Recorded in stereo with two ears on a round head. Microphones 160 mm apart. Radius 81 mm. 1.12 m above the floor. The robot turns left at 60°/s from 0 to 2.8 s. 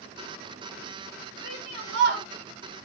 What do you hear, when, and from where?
1.4 s a shout: 65° right, 2.5 m; by 2.3 s 115° right, 2.5 m